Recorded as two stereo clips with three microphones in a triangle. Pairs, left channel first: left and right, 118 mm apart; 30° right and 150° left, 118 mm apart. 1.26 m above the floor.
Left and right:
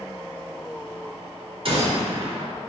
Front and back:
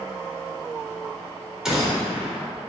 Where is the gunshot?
125° right, 3.5 m.